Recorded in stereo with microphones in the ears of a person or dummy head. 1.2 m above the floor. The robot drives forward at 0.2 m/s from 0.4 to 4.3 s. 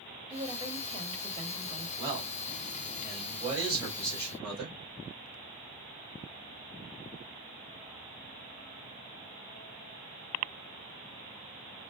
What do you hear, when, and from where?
0.3 s a woman speaking: 25° right (ahead or behind), 1.1 m; by 1.9 s 35° right (ahead or behind), 0.9 m
2.0 s a man speaking: 30° right (ahead or behind), 2.5 m; by 4.8 s 25° right (ahead or behind), 3 m